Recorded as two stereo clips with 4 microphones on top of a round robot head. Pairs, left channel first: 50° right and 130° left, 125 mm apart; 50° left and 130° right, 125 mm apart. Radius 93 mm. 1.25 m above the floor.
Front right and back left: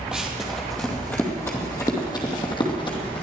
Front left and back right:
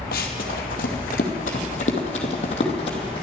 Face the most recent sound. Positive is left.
turn(degrees=0)